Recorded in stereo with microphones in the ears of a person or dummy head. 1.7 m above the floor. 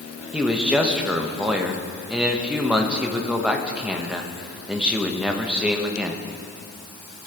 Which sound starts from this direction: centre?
A man speaking, at 0.3 s.